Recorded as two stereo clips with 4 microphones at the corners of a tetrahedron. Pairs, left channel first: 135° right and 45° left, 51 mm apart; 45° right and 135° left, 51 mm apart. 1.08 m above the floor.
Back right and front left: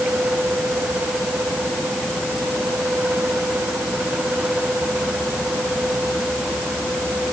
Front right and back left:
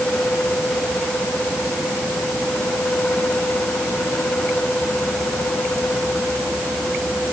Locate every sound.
Only background noise.